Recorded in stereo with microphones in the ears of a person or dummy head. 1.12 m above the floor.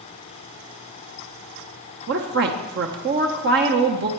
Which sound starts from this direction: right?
A woman speaking, at 2.1 s.